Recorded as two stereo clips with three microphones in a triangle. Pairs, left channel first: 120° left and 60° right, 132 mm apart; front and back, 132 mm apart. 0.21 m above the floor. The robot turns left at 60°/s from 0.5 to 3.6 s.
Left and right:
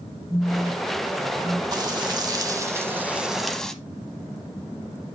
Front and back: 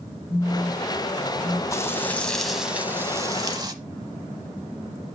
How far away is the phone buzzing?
About 1.3 m.